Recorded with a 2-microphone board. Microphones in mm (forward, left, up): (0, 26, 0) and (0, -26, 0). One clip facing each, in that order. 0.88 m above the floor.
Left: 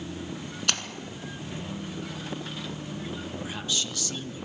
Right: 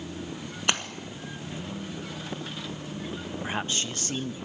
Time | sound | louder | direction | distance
0.7 | a splash | right 3 dB | 20° right (ahead or behind) | 1.5 m
3.4 | a man speaking | right 4 dB | 35° right (ahead or behind) | 0.9 m